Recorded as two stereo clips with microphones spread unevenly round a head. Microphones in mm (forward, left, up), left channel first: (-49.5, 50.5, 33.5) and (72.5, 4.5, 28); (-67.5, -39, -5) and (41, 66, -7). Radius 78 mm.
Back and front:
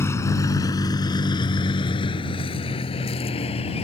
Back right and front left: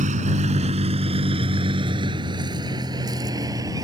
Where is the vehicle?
90° left; by 3.8 s 115° left.